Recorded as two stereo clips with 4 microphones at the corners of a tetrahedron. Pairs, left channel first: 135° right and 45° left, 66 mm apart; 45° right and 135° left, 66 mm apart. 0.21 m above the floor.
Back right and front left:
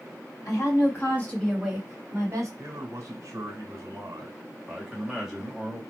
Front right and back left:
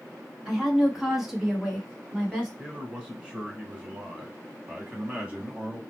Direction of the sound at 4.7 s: 115° left.